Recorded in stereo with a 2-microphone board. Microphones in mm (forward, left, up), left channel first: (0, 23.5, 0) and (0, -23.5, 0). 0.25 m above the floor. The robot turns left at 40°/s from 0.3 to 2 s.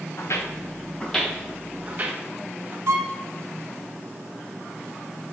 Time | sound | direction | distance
0.2 | footsteps | 65° left (ahead or behind) | 1.0 m
2.9 | a violin | 70° right (ahead or behind) | 0.7 m